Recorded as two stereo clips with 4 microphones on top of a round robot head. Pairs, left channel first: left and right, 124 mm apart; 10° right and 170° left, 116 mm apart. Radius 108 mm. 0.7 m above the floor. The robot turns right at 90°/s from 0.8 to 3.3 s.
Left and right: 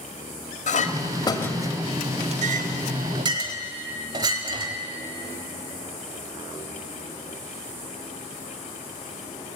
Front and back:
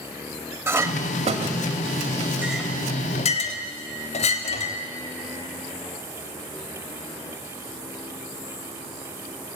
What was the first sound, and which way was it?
A clink, 105° left.